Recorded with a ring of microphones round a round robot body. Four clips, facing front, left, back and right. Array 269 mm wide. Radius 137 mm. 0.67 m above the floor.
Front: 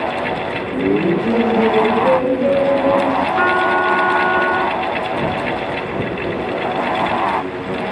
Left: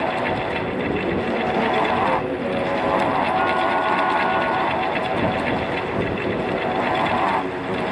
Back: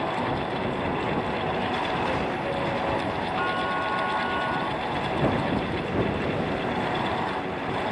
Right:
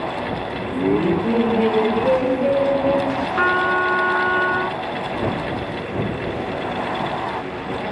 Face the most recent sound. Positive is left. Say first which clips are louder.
# right 1 dB, front 11 dB
turn(degrees=-25)